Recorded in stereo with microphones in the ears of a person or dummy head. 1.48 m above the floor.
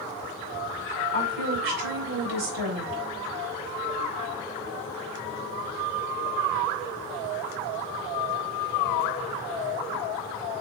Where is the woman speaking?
85° right, 5 m.